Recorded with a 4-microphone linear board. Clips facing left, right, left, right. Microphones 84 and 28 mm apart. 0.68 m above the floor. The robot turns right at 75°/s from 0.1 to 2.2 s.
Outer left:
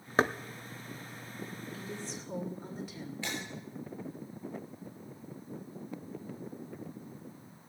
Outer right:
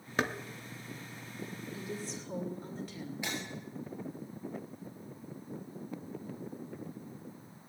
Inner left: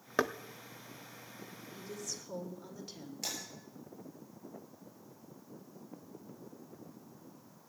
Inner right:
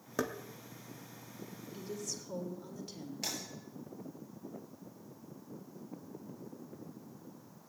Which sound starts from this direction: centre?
Breaking glass, at 3.2 s.